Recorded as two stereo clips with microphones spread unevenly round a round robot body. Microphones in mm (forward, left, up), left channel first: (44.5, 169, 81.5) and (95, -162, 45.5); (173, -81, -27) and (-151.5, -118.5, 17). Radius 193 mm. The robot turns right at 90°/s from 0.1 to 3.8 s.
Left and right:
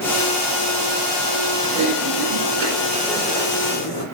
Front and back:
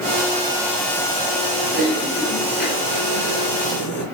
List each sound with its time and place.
1.6 s typing on a keyboard: 140° right, 3.5 m; by 4.0 s 60° left, 3.5 m